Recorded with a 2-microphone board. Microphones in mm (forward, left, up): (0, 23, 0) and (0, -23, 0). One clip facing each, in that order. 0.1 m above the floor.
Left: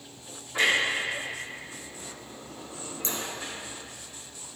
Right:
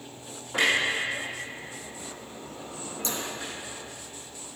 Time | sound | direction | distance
0.5 | a clunk | 65° right (ahead or behind) | 3 m
3.0 | scissors | 35° left (ahead or behind) | 0.9 m